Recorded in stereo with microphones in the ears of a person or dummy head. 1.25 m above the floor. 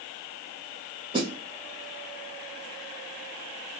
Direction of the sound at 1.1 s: 30° right (ahead or behind).